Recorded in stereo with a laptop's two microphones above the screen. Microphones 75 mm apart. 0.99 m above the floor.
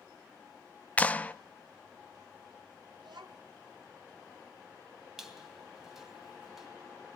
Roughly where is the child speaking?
Right.